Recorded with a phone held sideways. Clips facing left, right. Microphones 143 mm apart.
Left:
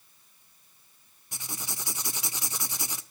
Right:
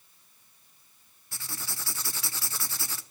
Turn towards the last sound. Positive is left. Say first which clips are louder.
# left 2 dB
turn(degrees=20)  # may be behind; listen again after turning